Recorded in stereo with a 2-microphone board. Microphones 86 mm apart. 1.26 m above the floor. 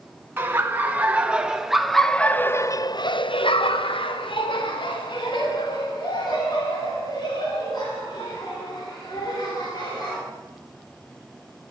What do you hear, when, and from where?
0.4 s laughter: 25° right (ahead or behind), 1.5 m; by 10.2 s 50° left (ahead or behind), 4.5 m